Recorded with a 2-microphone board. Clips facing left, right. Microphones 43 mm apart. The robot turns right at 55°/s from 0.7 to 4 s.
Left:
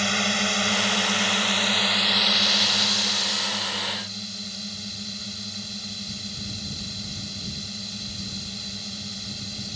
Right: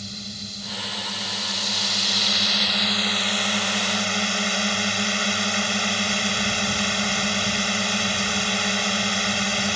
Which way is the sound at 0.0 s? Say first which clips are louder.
Left 13 dB; 80° left.